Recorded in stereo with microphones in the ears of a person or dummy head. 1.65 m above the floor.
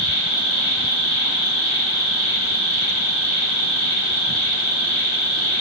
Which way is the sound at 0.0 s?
70° left (ahead or behind).